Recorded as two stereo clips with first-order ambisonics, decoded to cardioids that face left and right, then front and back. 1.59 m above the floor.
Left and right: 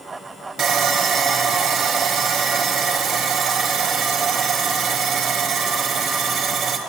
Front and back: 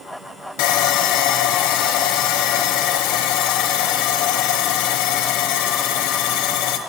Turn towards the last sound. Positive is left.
turn(degrees=-25)